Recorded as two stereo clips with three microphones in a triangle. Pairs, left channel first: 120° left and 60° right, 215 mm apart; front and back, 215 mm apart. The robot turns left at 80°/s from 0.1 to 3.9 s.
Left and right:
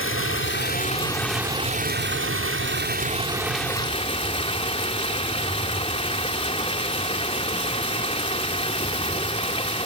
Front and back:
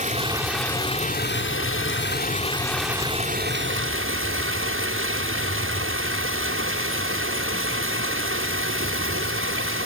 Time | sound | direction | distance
0.0 | running water | 130° left | 1.9 m